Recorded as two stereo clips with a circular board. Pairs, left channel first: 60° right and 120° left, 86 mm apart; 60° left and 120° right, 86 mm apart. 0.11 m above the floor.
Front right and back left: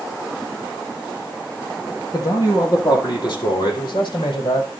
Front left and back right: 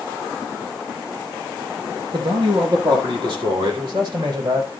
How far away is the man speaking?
About 3 m.